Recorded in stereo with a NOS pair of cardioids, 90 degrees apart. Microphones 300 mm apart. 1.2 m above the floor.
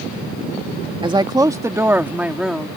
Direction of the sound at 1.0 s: 15° right.